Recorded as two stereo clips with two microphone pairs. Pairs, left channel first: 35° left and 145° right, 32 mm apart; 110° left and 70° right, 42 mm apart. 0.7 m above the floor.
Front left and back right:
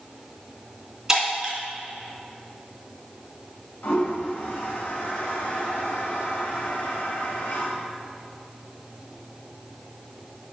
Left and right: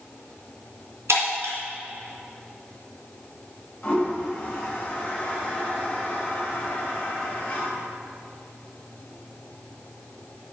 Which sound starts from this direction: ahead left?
A toilet flushing, at 3.8 s.